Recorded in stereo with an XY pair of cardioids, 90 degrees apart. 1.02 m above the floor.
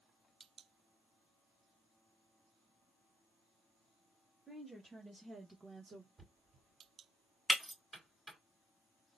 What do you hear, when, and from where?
4.5 s a woman speaking: 5° right, 1.5 m; by 6.1 s 70° right, 0.9 m
6.2 s knocking: 30° right, 2.5 m
7.5 s breaking glass: 5° right, 2 m